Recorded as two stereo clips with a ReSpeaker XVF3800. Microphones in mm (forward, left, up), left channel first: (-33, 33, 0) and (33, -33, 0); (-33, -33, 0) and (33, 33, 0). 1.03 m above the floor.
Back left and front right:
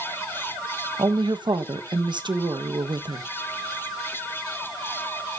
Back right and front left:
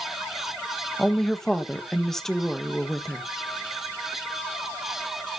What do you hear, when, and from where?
1.0 s a woman speaking: 50° right, 1.2 m